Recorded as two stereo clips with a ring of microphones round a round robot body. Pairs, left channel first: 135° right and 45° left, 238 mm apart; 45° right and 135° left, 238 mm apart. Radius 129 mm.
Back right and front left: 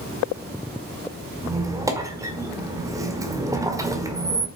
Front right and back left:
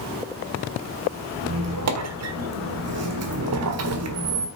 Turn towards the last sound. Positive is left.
turn(degrees=120)